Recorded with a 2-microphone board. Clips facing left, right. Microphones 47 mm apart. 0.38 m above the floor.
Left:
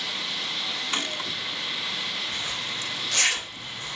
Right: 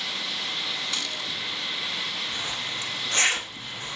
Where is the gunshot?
30° left (ahead or behind), 1.4 m.